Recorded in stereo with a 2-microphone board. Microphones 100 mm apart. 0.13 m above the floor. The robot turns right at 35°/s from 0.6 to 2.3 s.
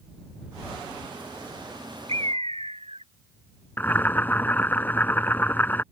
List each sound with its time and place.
2.1 s a bird: 65° right (ahead or behind); by 3.0 s 70° right (ahead or behind)
3.8 s boiling: 20° left (ahead or behind)